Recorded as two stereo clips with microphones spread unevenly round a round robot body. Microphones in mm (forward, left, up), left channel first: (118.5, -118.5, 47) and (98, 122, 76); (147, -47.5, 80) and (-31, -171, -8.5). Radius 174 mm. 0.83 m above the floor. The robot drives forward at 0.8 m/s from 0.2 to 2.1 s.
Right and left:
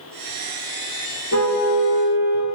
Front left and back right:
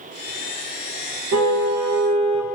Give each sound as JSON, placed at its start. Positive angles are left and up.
{"t": 1.3, "sound": "a car horn", "azimuth_deg": -140, "distance_m": 3.0}